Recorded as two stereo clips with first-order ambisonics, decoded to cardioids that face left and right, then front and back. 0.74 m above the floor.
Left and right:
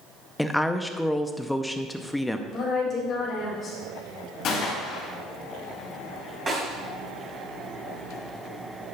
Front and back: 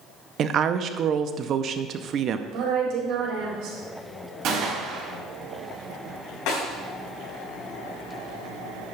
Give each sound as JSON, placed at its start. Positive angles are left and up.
{"t": 0.4, "sound": "a woman speaking", "azimuth_deg": 175, "distance_m": 0.5}
{"t": 2.5, "sound": "a woman speaking", "azimuth_deg": 155, "distance_m": 4.0}
{"t": 4.4, "sound": "a gunshot", "azimuth_deg": 140, "distance_m": 3.0}
{"t": 6.5, "sound": "a snare drum", "azimuth_deg": -15, "distance_m": 4.0}